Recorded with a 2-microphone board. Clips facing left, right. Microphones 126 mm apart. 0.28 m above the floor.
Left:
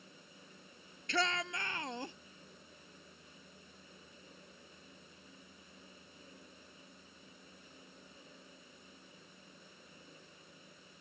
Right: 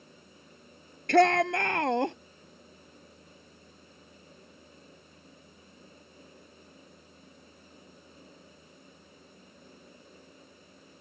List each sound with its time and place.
1.1 s a shout: 60° right (ahead or behind); by 2.2 s 70° right (ahead or behind)